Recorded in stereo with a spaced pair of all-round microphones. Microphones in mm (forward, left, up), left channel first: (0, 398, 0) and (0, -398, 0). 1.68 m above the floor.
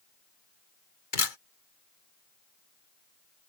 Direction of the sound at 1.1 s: 80° left.